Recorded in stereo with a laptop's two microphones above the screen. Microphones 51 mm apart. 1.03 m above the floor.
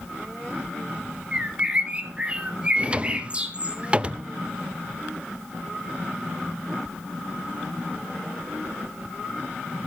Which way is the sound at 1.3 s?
25° right (ahead or behind).